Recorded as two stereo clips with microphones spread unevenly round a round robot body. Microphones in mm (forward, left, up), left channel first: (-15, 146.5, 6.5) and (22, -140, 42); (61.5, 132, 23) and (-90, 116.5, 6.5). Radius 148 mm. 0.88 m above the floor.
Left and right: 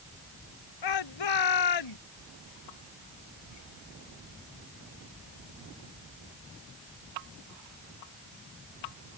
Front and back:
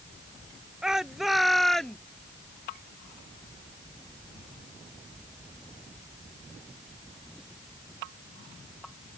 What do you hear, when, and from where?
0.8 s a shout: 100° left; by 2.0 s 90° left